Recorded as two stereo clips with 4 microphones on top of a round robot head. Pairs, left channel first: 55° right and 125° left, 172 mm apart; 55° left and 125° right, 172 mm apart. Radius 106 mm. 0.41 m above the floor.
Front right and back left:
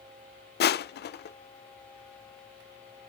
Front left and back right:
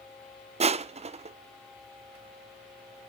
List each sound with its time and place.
0.6 s crushing: 70° right, 0.5 m